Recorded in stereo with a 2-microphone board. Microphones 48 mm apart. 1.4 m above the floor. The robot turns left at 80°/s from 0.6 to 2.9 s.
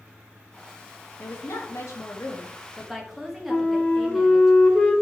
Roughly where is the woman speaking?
Behind left.